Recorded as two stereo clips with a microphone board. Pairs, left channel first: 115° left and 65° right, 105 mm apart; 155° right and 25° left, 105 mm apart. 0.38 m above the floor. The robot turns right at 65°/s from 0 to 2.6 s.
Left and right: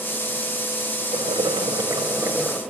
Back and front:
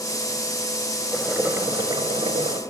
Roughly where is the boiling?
Right.